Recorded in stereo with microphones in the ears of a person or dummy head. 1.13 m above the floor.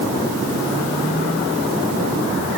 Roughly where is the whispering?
I don't hear whispering.